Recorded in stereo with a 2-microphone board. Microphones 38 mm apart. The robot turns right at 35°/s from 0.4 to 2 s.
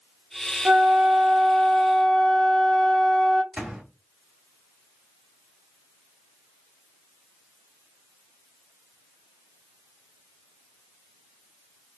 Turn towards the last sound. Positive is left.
turn(degrees=-15)  # may be behind; listen again after turning